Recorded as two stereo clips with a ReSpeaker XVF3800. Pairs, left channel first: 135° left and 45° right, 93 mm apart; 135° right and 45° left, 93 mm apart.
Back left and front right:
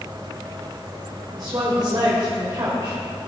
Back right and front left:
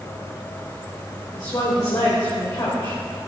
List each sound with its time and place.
1.3 s a woman speaking: 85° right, 2.5 m